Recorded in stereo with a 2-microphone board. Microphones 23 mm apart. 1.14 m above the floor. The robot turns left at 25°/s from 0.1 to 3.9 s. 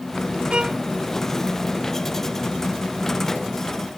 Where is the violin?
50° right (ahead or behind); by 0.8 s 45° right (ahead or behind).